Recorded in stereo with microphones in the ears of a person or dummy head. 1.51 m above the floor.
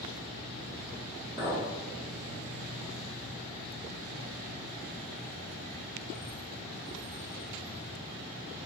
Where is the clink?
20° right (ahead or behind), 1.5 m.